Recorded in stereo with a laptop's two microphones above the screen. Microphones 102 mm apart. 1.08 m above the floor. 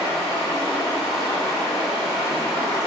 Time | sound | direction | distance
0.0 | running water | centre (ahead or behind) | 3 m